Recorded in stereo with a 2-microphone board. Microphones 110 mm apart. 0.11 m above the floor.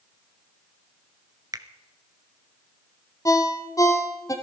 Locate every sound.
1.5 s a finger snap: 35° right (ahead or behind), 1.0 m
3.2 s a ringtone: 30° left (ahead or behind), 1.9 m